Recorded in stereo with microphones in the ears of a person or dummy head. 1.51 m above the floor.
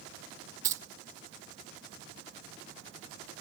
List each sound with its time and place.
0.6 s keys jangling: 20° right (ahead or behind), 0.9 m